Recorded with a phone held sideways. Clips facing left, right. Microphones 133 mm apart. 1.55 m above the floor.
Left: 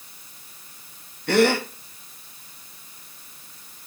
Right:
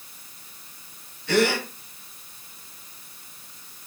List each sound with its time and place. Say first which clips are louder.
1.3 s a gasp: left 3 dB; 60° left (ahead or behind), 1.8 m